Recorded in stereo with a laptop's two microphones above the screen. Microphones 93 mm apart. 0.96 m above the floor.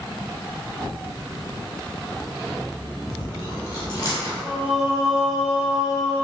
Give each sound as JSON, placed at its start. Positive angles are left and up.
{"t": 3.1, "sound": "chewing", "side_deg": 40, "distance_m": 1.4}
{"t": 4.4, "sound": "singing", "side_deg": -5, "distance_m": 0.8}